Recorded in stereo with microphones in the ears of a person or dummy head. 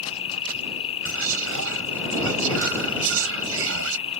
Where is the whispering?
70° right (ahead or behind).